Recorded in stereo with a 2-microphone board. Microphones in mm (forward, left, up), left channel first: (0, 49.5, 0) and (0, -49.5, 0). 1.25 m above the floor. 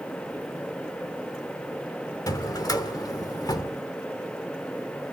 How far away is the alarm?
No alarm in this recording.